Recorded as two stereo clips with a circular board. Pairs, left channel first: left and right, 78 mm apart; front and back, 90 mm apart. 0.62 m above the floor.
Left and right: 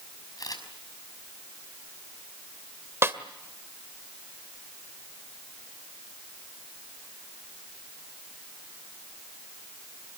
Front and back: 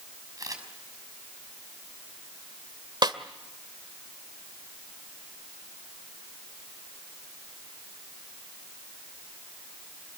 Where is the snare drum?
145° right, 1.9 m.